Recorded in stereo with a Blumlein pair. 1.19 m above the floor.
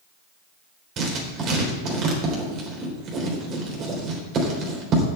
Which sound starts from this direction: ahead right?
Writing, at 1.0 s.